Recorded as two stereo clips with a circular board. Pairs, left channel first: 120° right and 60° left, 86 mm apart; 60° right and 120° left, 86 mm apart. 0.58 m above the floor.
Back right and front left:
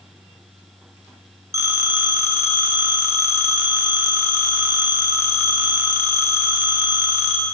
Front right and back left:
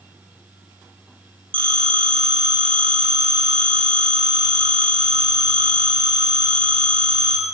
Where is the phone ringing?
115° left, 0.8 m.